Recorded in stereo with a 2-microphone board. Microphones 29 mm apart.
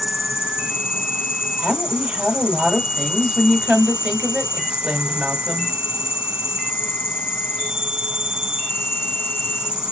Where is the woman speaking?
30° right (ahead or behind), 1.4 m.